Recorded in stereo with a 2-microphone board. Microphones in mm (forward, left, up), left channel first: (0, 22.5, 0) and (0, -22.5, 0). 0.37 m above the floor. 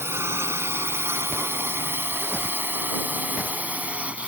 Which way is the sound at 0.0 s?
70° right (ahead or behind).